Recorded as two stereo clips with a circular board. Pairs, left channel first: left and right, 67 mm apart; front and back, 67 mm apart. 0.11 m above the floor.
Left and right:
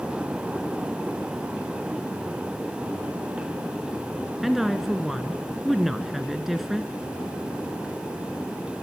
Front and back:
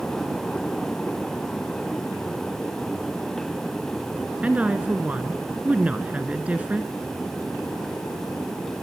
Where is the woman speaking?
170° right, 1.2 m.